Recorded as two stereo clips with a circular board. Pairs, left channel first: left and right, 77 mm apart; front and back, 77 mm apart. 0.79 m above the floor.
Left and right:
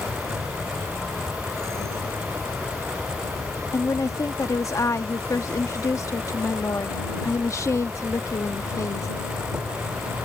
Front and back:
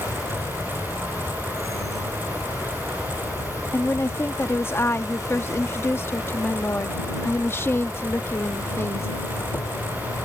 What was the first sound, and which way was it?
An insect, 40° right.